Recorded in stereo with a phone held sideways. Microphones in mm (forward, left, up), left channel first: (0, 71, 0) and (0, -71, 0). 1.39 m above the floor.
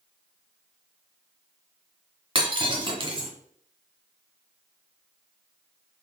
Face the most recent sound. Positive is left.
turn(degrees=-35)  # may be behind; listen again after turning